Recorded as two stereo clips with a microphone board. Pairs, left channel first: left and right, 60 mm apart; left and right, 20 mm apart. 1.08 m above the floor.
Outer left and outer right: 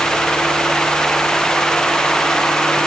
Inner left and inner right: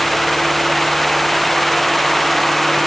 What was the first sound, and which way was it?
Only background noise.